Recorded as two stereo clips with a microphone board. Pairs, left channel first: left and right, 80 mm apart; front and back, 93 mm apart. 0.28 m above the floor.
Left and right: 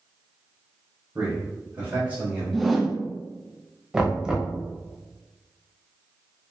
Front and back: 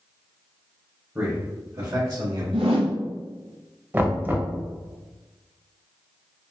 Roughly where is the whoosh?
Behind.